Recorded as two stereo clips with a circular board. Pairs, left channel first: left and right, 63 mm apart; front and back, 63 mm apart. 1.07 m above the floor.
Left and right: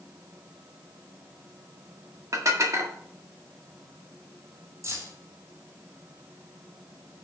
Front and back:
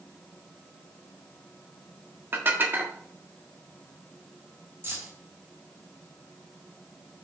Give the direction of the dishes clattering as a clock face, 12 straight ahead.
4 o'clock.